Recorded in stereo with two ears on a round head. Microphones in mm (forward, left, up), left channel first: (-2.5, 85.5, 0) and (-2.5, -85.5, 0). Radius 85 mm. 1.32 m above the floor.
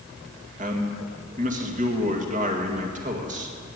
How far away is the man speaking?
About 1.9 m.